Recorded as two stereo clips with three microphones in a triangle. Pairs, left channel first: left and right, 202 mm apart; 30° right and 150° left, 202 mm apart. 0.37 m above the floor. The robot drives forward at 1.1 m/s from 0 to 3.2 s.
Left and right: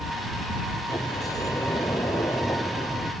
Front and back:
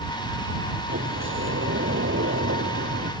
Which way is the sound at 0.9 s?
165° left.